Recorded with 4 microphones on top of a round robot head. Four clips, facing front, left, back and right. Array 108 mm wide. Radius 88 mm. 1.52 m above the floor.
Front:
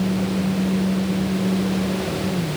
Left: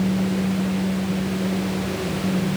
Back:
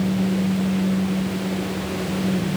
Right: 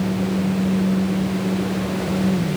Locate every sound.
Only background noise.